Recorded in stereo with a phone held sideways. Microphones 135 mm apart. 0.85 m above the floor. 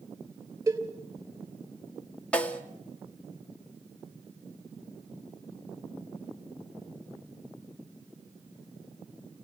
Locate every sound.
0.7 s a cowbell: 25° right (ahead or behind), 2.5 m
2.3 s a snare drum: 10° left (ahead or behind), 1.8 m